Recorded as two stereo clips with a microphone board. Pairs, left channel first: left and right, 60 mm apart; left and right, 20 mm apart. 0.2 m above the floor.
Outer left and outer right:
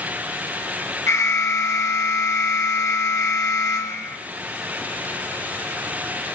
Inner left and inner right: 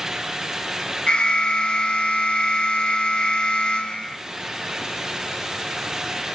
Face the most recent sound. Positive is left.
turn(degrees=60)  # may be behind; listen again after turning